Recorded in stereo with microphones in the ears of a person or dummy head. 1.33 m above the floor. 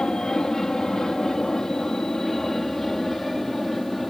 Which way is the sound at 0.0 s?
5° left (ahead or behind).